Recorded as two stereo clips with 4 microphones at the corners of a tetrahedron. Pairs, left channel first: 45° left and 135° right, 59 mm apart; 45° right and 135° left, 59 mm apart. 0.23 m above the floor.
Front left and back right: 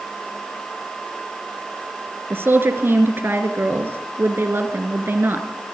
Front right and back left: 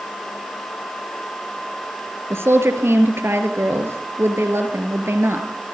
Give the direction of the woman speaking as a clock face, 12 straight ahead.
6 o'clock.